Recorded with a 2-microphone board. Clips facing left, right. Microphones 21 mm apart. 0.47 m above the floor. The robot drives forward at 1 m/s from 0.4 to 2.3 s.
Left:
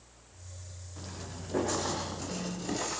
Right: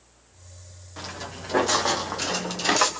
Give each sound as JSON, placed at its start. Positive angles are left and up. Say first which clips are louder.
{"t": 1.0, "sound": "footsteps", "louder": "right 9 dB", "side_deg": -35, "distance_m": 6.0}